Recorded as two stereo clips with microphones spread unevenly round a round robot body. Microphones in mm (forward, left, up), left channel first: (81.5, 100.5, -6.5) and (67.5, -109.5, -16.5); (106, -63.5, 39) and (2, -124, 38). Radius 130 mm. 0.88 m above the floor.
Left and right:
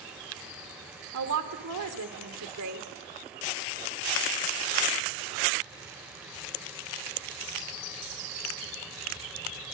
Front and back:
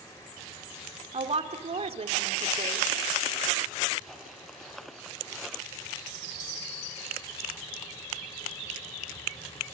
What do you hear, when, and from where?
1.1 s a woman speaking: 115° right, 2.5 m